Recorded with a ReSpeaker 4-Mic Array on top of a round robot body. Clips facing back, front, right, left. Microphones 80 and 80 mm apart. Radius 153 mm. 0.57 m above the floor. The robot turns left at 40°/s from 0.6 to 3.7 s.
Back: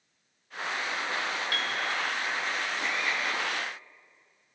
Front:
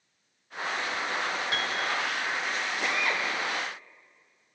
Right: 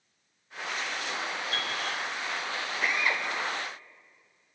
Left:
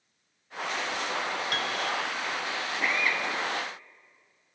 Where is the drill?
5° right, 3 m; by 3.2 s 20° right, 3 m.